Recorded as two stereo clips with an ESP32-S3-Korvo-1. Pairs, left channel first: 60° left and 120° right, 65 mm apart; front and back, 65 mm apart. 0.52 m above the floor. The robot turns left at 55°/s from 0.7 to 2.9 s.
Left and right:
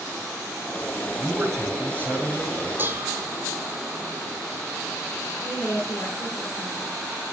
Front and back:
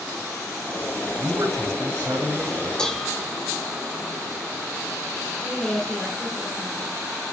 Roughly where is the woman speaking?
Left.